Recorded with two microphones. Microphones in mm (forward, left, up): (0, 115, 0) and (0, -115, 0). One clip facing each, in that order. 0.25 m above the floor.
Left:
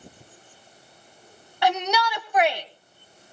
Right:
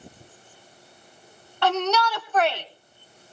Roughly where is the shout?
Centre.